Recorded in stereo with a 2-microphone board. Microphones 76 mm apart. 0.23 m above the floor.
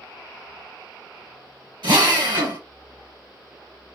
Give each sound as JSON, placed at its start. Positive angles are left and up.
{"t": 1.8, "sound": "a drill", "side_deg": -70, "distance_m": 2.5}